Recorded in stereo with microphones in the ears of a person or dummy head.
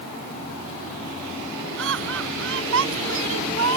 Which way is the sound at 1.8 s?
75° right (ahead or behind).